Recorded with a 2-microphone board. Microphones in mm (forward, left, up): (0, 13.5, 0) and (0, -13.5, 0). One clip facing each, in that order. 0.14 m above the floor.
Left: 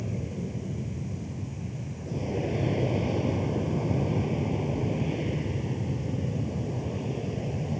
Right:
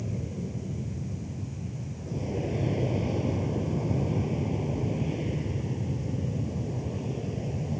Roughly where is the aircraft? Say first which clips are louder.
Left 1 dB; centre.